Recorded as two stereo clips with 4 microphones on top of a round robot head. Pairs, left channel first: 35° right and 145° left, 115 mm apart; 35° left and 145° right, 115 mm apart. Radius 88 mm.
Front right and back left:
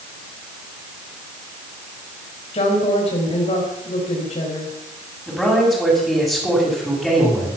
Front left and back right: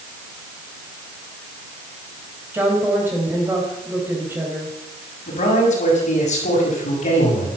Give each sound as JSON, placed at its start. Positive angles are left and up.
{"t": 2.5, "sound": "a woman speaking", "azimuth_deg": -75, "distance_m": 4.0}
{"t": 5.3, "sound": "a man speaking", "azimuth_deg": 55, "distance_m": 7.0}